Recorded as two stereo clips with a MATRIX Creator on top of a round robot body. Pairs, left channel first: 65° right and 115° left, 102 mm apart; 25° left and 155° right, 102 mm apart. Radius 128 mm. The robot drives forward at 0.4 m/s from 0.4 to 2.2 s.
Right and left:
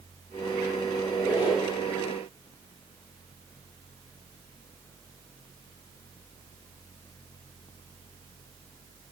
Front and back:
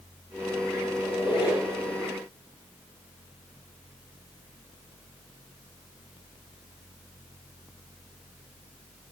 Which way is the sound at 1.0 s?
25° right.